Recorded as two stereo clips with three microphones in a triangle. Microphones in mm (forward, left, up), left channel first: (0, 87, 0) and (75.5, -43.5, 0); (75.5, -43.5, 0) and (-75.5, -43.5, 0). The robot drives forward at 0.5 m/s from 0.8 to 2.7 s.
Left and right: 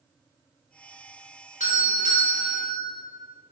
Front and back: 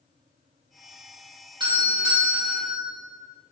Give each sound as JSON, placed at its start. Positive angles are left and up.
{"t": 1.6, "sound": "a doorbell", "azimuth_deg": 130, "distance_m": 3.0}